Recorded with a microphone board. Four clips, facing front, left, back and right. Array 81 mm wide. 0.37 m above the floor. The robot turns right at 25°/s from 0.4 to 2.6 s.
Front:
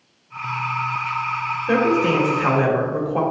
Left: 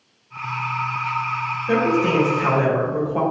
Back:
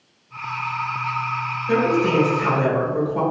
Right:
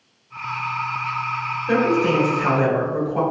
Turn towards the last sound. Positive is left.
turn(degrees=25)